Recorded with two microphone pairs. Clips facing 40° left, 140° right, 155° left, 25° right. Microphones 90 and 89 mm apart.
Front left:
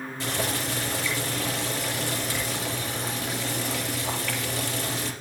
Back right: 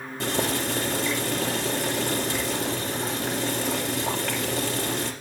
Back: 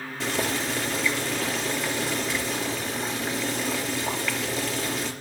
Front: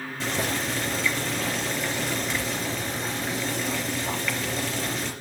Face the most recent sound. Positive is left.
turn(degrees=-120)